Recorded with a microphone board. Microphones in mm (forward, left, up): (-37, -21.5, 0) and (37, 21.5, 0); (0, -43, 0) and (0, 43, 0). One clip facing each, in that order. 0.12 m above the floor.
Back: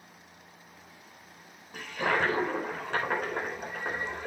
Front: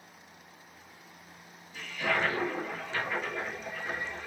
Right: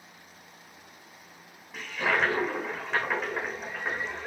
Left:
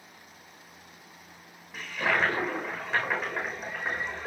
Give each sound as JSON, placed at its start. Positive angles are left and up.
{"t": 1.7, "sound": "a toilet flushing", "azimuth_deg": 180, "distance_m": 5.0}